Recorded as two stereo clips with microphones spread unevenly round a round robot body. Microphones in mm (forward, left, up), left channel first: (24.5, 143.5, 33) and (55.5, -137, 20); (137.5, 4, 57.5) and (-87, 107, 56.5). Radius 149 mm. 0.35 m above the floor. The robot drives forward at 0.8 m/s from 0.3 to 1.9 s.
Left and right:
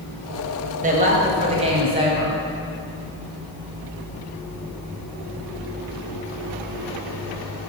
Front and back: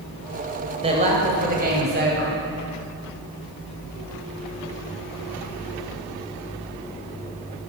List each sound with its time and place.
0.8 s a woman speaking: 140° right, 1.9 m; by 2.4 s 155° right, 2.5 m